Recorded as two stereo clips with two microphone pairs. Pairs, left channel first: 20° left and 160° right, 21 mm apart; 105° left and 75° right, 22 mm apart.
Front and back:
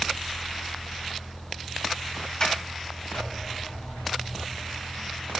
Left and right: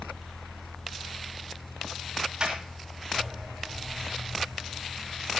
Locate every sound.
2.4 s a sliding door: 25° right, 4 m